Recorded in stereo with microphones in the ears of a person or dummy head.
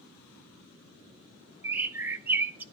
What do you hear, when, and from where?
1.6 s a bird: 10° right (ahead or behind), 0.7 m